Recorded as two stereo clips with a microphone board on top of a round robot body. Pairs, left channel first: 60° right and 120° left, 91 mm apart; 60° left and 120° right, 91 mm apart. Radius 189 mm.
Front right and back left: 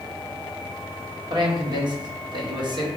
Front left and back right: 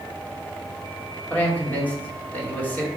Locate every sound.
1.3 s a man speaking: 130° left, 1.5 m